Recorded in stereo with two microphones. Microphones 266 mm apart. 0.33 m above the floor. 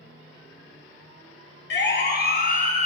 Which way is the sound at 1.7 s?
45° left (ahead or behind).